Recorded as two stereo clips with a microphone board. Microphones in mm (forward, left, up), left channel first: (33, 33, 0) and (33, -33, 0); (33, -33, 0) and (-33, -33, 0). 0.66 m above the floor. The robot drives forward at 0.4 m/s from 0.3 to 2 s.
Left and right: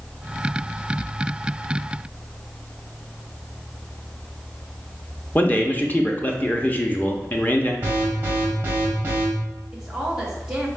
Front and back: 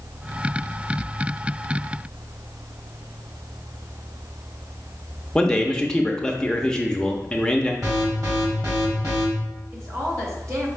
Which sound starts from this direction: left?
A man speaking, at 5.3 s.